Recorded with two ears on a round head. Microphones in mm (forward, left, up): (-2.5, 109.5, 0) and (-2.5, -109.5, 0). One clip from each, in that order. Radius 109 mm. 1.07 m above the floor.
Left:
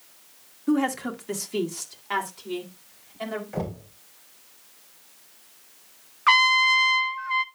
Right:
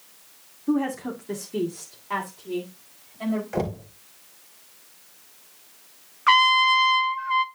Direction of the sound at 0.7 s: 85° left.